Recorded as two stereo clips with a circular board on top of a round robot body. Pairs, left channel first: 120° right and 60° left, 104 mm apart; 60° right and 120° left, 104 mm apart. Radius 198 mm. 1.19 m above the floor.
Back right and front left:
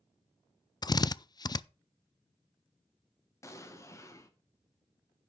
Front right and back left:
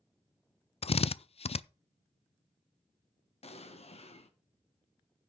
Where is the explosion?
60° right, 1.8 m.